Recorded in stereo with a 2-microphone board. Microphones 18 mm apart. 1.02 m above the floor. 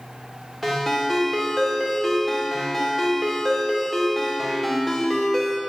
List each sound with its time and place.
0.6 s a ringtone: centre (ahead or behind), 2 m